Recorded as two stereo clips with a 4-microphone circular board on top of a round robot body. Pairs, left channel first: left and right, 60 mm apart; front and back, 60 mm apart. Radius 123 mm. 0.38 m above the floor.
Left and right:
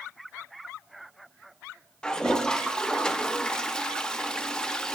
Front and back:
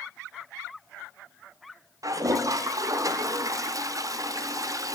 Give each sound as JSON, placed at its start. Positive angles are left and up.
{"t": 2.0, "sound": "a toilet flushing", "azimuth_deg": 165, "distance_m": 0.6}